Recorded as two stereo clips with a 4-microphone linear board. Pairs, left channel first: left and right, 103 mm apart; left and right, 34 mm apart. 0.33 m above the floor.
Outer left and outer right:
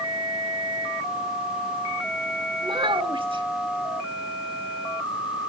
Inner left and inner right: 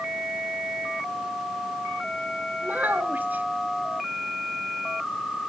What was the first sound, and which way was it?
A child speaking, 60° right (ahead or behind).